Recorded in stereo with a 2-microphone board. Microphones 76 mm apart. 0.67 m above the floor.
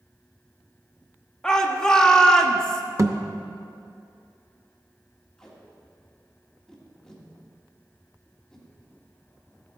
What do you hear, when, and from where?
1.4 s a shout: 10° left (ahead or behind), 1.1 m
3.0 s a thud: 45° right (ahead or behind), 0.6 m
5.4 s tape being pulled: 5° left (ahead or behind), 1.9 m